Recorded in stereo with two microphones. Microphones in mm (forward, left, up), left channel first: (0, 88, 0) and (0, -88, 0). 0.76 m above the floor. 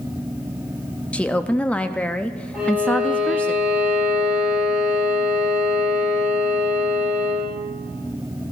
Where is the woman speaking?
5° left (ahead or behind), 0.6 m.